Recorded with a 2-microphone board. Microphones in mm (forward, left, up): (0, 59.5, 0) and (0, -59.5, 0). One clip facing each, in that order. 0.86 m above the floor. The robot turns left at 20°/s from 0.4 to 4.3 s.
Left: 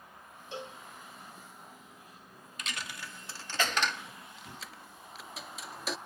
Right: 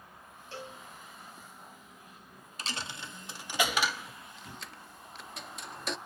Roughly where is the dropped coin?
Right.